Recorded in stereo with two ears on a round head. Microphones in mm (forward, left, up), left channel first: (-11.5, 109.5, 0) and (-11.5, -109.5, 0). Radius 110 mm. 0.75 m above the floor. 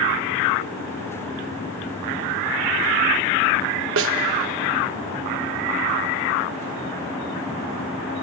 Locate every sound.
4.0 s a snare drum: 55° right (ahead or behind), 0.6 m